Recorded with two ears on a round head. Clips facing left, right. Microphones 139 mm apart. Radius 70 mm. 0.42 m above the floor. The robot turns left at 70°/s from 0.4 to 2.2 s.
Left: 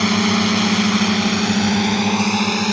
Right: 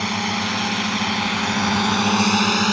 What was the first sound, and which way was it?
A drone, 70° left (ahead or behind).